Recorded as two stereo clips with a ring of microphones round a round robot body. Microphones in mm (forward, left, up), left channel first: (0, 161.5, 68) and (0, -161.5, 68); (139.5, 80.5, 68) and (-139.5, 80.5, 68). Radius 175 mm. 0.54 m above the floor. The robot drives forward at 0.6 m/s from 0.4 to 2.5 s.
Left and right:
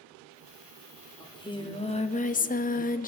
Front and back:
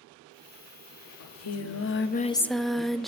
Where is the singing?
10° left, 0.9 m; by 3.1 s 90° left, 0.5 m.